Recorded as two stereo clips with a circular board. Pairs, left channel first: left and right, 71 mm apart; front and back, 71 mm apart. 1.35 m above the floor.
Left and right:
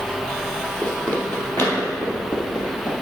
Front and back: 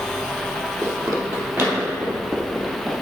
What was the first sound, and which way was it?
Running footsteps, 160° left.